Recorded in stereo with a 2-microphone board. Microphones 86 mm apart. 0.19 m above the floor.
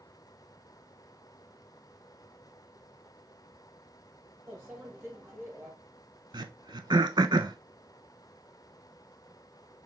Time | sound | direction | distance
4.5 | a microwave | 30° right (ahead or behind) | 2.5 m
6.3 | throat clearing | 55° right (ahead or behind) | 0.6 m